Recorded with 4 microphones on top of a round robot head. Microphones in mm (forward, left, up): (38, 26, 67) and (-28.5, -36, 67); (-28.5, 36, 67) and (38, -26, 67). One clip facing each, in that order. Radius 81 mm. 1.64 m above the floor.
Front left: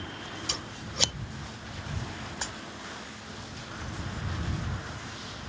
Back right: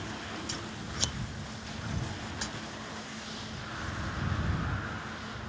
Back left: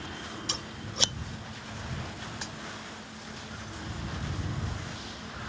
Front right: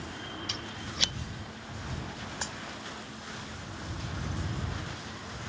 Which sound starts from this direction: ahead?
A dropped coin, at 2.4 s.